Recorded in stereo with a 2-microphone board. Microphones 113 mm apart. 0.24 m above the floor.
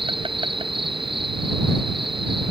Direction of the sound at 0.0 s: 50° right (ahead or behind).